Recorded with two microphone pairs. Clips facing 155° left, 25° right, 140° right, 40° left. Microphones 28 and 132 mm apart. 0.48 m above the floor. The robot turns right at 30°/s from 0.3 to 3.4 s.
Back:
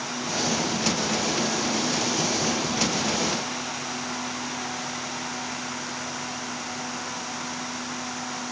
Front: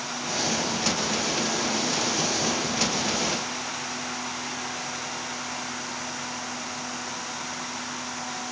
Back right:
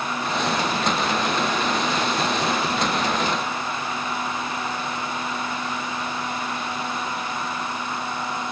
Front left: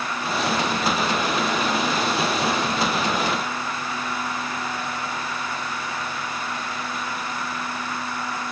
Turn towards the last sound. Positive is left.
No sound to turn to.